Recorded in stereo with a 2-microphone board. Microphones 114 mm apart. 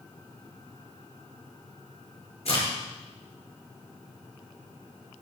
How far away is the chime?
No chime in this recording.